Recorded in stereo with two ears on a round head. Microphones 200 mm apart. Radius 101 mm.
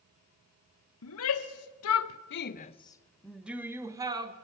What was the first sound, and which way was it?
A shout, 70° left (ahead or behind).